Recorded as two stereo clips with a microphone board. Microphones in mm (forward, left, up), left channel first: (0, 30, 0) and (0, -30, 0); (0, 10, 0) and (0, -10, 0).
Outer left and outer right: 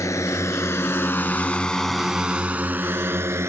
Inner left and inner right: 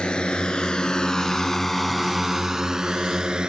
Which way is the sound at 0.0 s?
60° left (ahead or behind).